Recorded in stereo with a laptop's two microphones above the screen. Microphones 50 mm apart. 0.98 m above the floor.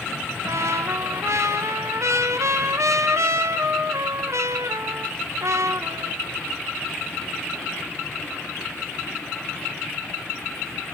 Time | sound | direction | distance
0.5 | a trumpet | 70° right (ahead or behind) | 1.0 m